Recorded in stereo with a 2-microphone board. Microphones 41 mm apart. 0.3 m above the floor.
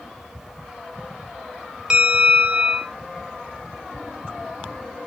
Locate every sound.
1.9 s a bell: 25° right (ahead or behind), 1.3 m